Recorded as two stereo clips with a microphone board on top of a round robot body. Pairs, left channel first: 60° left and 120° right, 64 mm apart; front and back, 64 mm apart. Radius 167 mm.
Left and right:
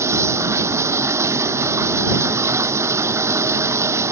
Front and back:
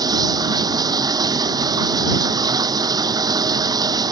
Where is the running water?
165° right.